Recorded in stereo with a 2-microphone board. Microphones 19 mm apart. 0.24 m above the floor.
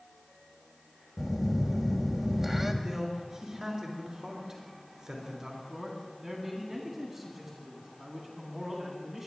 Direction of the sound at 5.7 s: 15° right (ahead or behind).